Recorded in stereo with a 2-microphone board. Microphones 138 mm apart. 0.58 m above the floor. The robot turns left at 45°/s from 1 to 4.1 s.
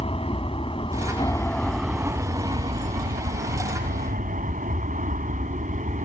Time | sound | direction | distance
0.0 | an aircraft | 40° left (ahead or behind) | ?